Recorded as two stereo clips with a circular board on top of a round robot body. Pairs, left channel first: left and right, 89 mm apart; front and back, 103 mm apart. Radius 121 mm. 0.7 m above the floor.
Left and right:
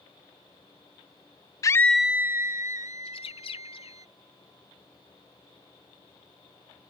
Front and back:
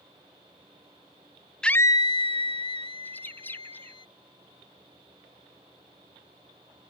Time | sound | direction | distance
1.6 | a scream | 80° left | ?
3.0 | a bird | 75° left | ?